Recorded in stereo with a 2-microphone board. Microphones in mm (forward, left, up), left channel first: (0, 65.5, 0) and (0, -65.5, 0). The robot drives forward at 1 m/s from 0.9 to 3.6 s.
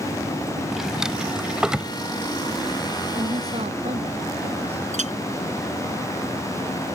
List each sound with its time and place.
0.7 s a drawer: 5° right (ahead or behind)
3.1 s a woman speaking: 50° right (ahead or behind)
4.9 s a clink: 70° right (ahead or behind)